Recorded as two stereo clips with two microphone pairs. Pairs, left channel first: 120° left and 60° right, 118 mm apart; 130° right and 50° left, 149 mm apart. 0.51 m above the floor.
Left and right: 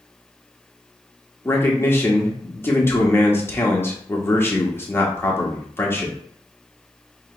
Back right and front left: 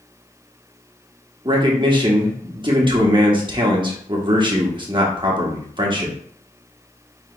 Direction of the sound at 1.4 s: 65° left.